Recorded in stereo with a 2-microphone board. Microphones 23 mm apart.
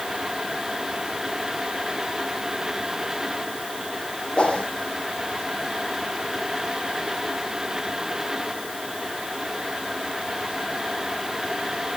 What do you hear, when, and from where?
4.4 s a whoosh: 50° left (ahead or behind), 4 m